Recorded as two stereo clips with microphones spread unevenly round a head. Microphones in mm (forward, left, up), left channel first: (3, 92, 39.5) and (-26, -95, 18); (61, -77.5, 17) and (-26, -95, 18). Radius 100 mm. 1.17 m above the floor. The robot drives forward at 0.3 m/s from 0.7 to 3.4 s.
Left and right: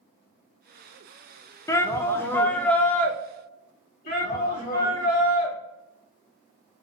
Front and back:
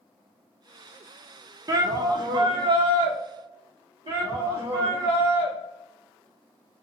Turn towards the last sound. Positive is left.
turn(degrees=125)